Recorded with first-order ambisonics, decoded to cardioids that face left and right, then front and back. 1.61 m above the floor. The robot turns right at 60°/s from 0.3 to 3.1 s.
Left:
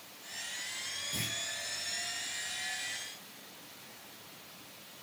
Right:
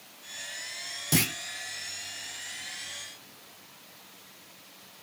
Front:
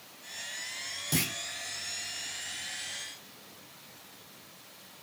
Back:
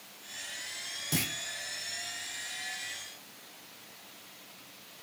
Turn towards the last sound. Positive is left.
turn(degrees=30)